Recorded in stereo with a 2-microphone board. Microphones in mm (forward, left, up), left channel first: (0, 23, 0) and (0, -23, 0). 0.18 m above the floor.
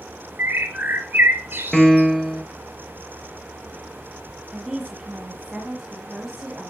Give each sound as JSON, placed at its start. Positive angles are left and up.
{"t": 0.4, "sound": "a bird", "side_deg": -55, "distance_m": 1.8}
{"t": 1.7, "sound": "a piano", "side_deg": 10, "distance_m": 0.6}
{"t": 4.5, "sound": "a woman speaking", "side_deg": -15, "distance_m": 1.5}